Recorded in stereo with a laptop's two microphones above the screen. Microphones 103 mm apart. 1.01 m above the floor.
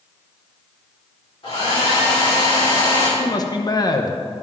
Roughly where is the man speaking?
Left.